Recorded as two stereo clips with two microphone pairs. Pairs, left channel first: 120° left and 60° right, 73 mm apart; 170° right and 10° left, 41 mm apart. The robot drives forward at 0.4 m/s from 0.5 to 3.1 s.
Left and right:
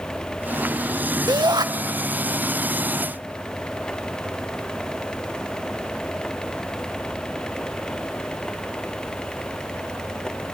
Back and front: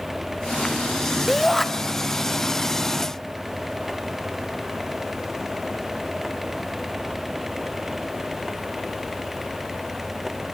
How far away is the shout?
About 1.3 m.